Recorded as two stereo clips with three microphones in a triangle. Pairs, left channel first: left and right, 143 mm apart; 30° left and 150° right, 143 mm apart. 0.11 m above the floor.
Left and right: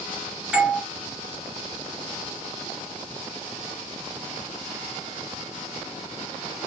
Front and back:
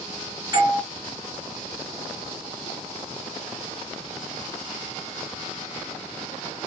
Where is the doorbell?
165° right, 2.5 m.